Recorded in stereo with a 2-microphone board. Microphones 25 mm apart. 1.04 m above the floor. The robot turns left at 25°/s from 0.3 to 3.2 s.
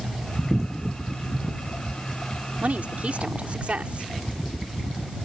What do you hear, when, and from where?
2.6 s a woman speaking: 65° right (ahead or behind); by 4.1 s 55° right (ahead or behind)